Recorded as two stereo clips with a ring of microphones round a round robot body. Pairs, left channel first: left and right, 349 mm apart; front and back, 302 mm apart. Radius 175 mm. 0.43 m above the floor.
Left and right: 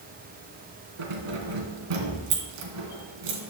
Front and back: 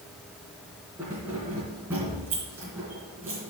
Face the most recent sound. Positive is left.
turn(degrees=-95)